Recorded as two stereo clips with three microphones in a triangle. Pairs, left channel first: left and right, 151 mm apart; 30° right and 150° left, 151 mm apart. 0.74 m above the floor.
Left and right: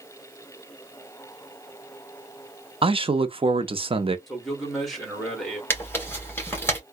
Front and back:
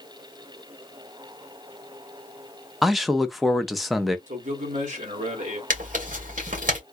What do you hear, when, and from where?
2.8 s a man speaking: 120° right, 0.6 m
4.3 s a man speaking: straight behind, 1.8 m
5.7 s tearing paper: 160° left, 1.9 m